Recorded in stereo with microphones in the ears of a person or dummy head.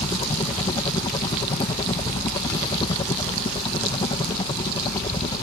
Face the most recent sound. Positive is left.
turn(degrees=30)  # may be behind; listen again after turning